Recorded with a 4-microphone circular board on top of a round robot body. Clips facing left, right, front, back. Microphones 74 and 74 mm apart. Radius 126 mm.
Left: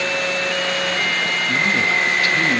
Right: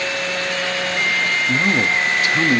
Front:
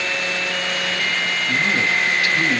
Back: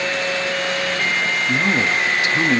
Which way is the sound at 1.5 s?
140° right.